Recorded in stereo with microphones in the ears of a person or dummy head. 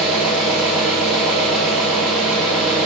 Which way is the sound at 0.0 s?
5° left (ahead or behind).